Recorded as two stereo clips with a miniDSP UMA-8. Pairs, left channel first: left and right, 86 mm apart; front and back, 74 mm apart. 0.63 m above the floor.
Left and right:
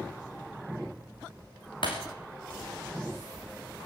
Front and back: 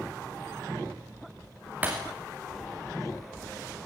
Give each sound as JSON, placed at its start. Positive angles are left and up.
{"t": 1.8, "sound": "breaking glass", "azimuth_deg": 110, "distance_m": 5.0}